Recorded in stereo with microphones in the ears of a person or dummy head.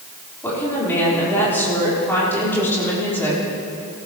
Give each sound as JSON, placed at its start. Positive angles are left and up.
{"t": 0.4, "sound": "a woman speaking", "side_deg": 10, "distance_m": 4.5}